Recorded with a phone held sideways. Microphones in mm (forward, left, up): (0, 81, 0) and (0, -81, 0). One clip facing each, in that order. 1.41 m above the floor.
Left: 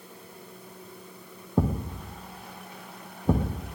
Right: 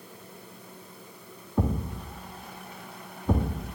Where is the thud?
35° left (ahead or behind), 2.5 m.